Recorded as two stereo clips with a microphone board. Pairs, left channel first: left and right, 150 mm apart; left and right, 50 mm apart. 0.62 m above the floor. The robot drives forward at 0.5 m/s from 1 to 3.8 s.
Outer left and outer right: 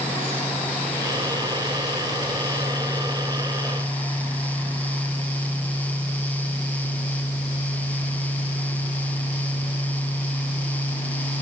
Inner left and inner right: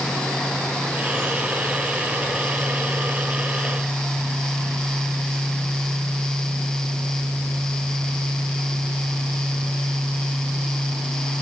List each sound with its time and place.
Only background noise.